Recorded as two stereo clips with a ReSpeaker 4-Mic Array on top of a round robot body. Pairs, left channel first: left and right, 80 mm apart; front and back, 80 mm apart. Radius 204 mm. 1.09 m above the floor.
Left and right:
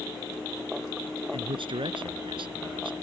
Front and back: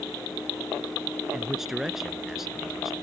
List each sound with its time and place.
1.3 s a man speaking: 95° right